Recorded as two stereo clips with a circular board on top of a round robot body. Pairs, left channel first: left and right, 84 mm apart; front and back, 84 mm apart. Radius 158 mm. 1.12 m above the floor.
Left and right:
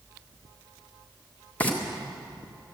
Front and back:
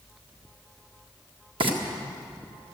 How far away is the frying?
About 1.9 m.